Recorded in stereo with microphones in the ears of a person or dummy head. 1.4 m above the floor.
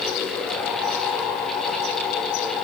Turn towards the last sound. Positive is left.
No sound to turn to.